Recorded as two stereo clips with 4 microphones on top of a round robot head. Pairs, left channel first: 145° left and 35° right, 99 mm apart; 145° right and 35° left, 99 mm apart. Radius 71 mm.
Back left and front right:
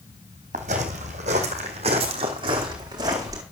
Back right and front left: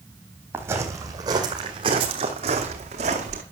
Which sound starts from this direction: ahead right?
Footsteps, at 0.5 s.